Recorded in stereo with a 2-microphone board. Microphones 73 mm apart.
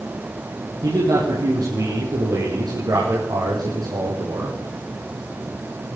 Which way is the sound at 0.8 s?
60° right (ahead or behind).